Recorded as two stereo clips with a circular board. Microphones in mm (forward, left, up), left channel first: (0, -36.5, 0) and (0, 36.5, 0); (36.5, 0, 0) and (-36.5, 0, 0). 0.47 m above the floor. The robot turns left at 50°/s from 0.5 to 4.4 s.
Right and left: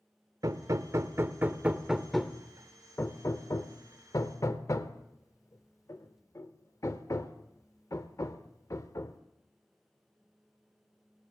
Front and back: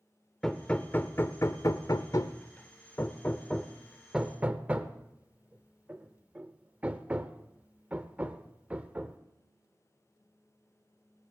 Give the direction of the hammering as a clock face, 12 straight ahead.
9 o'clock.